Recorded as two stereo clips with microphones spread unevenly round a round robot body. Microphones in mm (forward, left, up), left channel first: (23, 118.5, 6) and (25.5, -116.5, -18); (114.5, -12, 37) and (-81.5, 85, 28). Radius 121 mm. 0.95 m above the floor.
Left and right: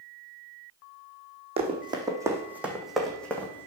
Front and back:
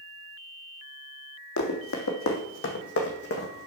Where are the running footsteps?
25° right, 2.0 m; by 3.7 s 15° left, 2.5 m.